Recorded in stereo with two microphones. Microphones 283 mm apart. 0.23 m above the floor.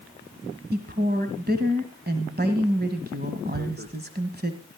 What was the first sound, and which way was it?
A woman speaking, 35° right (ahead or behind).